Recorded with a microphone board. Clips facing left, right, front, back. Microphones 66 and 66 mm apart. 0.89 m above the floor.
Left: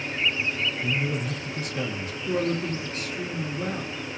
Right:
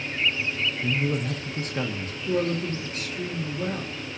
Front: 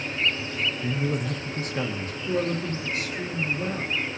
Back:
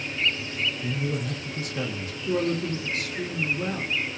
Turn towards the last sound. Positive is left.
turn(degrees=160)